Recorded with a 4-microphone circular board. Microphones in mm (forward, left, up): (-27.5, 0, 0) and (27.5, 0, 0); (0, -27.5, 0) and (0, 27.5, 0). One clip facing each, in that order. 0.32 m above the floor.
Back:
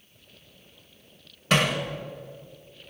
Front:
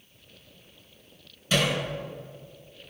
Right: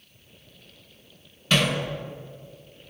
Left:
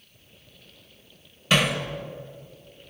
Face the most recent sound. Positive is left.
turn(degrees=170)